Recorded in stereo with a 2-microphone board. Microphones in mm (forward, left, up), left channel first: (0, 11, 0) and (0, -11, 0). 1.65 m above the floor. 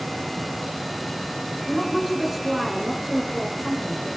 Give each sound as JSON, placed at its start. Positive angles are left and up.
{"t": 1.7, "sound": "a woman speaking", "side_deg": 0, "distance_m": 6.5}